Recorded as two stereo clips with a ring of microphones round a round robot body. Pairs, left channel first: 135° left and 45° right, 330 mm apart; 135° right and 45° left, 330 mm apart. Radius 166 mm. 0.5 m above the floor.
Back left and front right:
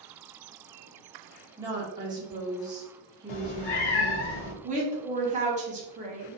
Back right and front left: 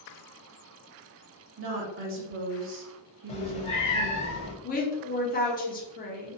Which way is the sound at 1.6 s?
25° left.